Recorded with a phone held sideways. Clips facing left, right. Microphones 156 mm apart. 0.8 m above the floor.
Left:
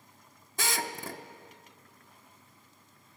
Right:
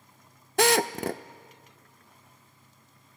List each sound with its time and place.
0.6 s a drill: 65° right (ahead or behind), 0.5 m